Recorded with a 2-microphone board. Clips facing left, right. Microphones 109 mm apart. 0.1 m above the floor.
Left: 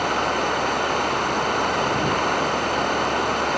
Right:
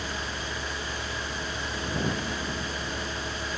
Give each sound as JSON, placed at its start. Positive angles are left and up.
{"t": 0.0, "sound": "running water", "side_deg": 65}